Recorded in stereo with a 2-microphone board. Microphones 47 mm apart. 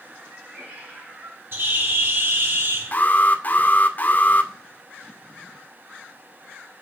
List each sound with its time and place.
0.2 s a cat meowing: 25° right (ahead or behind), 6 m; by 1.4 s 40° right (ahead or behind), 5.5 m
1.5 s a bird: 55° right (ahead or behind), 4.5 m
2.9 s an alarm: 40° left (ahead or behind), 2.0 m